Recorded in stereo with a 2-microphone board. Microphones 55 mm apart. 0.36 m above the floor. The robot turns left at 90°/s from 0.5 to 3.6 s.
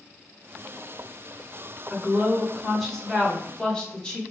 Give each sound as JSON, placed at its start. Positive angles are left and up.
{"t": 1.9, "sound": "a woman speaking", "side_deg": -20, "distance_m": 0.9}